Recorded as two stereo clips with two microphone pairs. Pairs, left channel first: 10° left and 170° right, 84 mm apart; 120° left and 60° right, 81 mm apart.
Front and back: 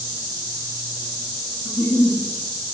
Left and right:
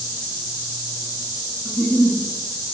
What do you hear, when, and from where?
1.6 s a giggle: 55° left, 0.7 m